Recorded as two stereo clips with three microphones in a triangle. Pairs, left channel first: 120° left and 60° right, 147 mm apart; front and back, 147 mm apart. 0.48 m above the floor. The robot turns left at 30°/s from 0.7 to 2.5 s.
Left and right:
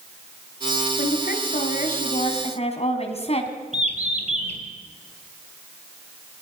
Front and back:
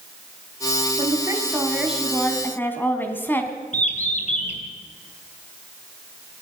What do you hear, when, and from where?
1.0 s a woman speaking: 120° left, 3.5 m; by 3.5 s 75° left, 3.5 m
3.7 s a bird: 25° right, 3 m